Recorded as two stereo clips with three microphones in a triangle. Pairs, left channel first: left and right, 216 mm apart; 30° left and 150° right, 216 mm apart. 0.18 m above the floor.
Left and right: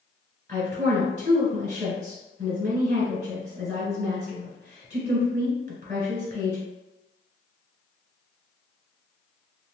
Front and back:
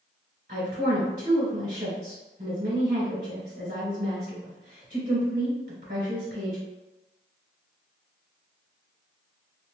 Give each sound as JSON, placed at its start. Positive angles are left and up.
{"t": 0.5, "sound": "a woman speaking", "azimuth_deg": -130, "distance_m": 1.9}